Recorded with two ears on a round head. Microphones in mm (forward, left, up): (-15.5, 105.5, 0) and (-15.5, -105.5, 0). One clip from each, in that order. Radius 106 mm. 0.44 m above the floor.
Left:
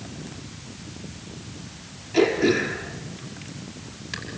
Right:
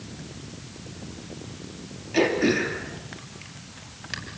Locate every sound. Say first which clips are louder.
2.1 s throat clearing: left 2 dB; 20° right (ahead or behind), 5 m